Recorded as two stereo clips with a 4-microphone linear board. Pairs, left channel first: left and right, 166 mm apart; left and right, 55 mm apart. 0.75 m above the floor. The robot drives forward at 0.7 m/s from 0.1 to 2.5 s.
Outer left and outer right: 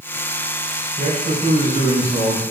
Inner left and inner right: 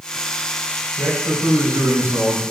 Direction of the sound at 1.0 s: 65° right (ahead or behind).